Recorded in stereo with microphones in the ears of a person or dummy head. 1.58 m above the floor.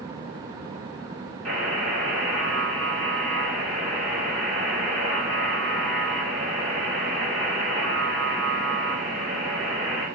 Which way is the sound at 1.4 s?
5° left (ahead or behind).